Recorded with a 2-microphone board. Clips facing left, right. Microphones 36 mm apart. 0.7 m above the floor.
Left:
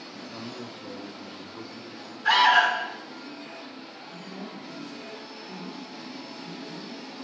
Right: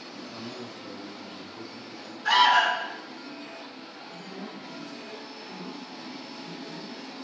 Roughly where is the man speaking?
Centre.